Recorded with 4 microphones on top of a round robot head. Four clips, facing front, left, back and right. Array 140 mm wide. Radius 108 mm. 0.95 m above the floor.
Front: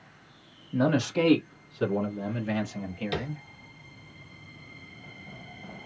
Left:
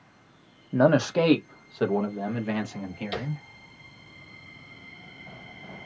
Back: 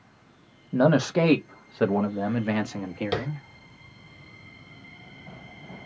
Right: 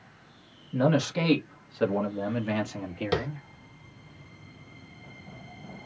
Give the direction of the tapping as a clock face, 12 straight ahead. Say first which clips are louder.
Right 7 dB, back 4 dB; 4 o'clock.